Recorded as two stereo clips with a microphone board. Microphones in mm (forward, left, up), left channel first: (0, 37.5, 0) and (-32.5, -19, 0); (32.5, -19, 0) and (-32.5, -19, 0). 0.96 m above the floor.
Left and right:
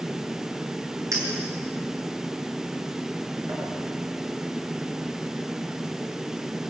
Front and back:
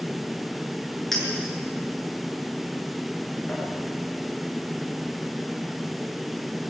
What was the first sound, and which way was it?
A clink, 85° right.